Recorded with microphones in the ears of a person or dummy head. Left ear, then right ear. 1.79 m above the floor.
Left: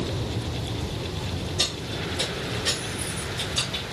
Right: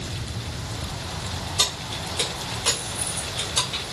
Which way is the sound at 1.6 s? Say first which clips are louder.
Right 3 dB; 40° right (ahead or behind).